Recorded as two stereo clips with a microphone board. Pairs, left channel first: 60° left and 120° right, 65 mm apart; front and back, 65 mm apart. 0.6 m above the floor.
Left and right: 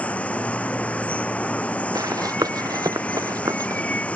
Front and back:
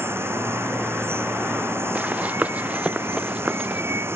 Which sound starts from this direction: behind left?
Running water, at 0.0 s.